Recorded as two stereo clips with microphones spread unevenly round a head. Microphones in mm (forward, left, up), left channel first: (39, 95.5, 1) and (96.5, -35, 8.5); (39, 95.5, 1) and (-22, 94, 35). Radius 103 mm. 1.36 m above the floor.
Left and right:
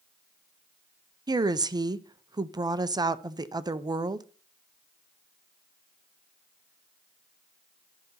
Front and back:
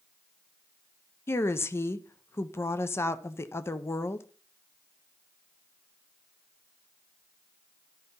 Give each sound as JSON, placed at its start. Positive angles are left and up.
{"t": 1.3, "sound": "a woman speaking", "azimuth_deg": -5, "distance_m": 0.6}